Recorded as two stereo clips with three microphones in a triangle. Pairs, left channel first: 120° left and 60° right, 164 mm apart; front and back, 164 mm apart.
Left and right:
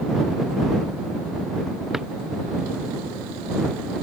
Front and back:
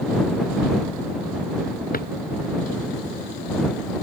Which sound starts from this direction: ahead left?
A drawer, at 1.9 s.